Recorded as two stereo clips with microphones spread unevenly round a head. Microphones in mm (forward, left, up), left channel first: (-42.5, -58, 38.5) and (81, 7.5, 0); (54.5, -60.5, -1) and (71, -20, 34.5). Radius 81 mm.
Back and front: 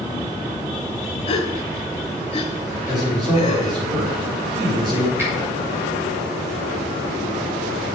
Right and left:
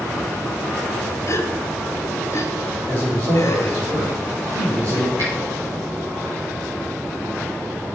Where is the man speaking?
95° left, 4.5 m.